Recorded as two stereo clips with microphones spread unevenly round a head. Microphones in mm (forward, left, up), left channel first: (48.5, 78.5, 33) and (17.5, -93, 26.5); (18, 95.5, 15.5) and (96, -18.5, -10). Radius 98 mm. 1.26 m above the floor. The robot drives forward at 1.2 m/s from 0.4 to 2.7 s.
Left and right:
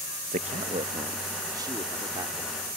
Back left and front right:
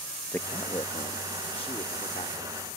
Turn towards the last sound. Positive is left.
turn(degrees=-175)